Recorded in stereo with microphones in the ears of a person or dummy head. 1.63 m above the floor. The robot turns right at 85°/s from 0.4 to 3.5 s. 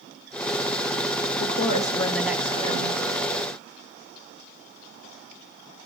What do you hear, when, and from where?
1.4 s a woman speaking: 110° left, 1.9 m; by 3.0 s 110° right, 1.9 m